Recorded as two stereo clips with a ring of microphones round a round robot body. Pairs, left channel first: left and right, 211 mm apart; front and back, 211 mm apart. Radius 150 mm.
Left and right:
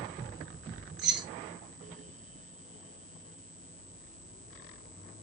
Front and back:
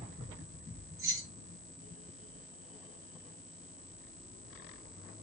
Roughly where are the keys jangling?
Right.